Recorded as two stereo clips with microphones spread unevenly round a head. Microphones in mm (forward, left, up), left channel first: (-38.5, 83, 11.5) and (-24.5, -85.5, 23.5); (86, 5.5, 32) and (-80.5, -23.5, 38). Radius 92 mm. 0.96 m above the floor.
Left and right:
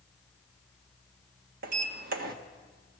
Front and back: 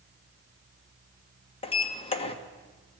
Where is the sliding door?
45° right, 1.6 m.